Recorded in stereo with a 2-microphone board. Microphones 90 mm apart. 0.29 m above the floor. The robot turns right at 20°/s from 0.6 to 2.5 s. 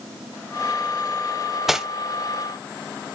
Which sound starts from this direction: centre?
Cutlery clinking, at 1.7 s.